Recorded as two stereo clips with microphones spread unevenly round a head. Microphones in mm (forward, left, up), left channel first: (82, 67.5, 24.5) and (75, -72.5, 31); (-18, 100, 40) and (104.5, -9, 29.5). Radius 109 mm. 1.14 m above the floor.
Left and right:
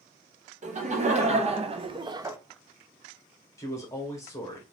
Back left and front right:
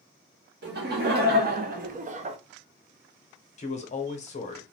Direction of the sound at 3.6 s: 140° left.